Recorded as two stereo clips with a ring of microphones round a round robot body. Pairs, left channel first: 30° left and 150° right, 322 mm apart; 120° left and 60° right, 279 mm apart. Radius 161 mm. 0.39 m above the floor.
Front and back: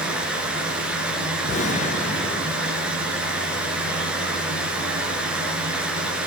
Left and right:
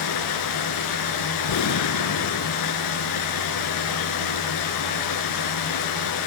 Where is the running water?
125° left, 4 m.